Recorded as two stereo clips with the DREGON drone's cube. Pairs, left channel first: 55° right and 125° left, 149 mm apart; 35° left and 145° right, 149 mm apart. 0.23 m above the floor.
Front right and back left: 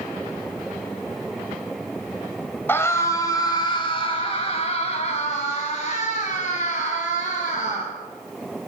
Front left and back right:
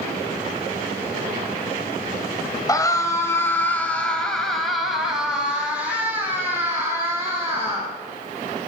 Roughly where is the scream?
Ahead.